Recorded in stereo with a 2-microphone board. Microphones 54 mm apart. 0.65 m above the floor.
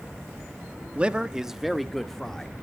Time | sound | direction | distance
0.9 | a man speaking | 25° right (ahead or behind) | 0.8 m